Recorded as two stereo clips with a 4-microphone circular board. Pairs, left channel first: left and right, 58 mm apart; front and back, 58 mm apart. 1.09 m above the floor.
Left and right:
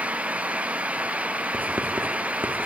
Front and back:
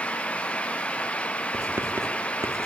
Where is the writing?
145° right, 2.5 m.